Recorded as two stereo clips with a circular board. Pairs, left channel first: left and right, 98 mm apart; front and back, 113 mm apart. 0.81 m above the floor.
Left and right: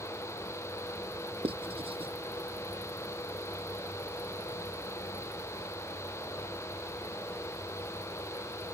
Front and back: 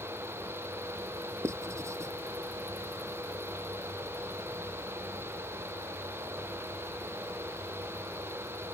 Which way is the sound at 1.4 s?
115° right.